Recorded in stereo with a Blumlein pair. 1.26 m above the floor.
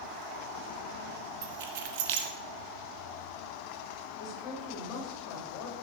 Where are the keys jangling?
50° right, 1.6 m.